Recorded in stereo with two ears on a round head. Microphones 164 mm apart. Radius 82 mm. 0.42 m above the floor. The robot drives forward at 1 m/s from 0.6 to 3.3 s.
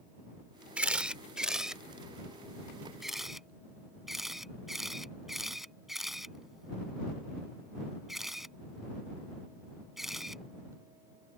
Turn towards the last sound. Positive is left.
turn(degrees=0)  # may be behind; listen again after turning